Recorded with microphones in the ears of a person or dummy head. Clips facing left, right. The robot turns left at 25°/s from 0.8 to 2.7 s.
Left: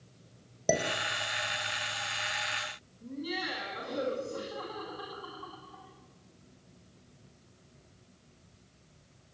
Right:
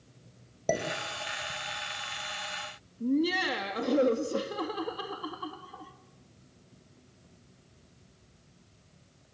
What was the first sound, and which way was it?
Dishes clattering, 5° left (ahead or behind).